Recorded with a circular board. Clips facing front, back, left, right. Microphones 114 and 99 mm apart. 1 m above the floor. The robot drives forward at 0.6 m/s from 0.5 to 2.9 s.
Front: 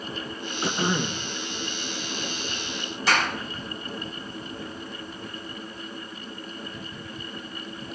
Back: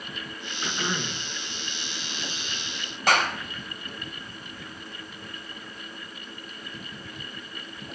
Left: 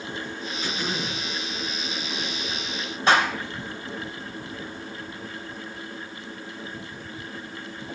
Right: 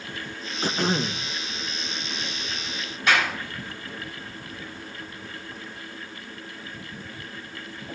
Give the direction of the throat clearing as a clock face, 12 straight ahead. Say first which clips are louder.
Front 5 dB, right 6 dB; 2 o'clock.